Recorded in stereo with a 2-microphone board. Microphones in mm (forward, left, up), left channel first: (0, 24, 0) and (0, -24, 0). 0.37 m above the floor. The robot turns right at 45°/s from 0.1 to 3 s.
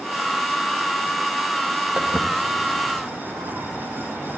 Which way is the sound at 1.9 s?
30° right (ahead or behind).